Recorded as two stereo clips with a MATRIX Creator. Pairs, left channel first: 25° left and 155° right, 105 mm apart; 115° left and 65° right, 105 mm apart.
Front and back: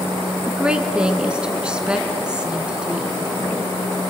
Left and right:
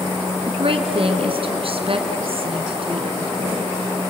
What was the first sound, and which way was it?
A woman speaking, 75° right.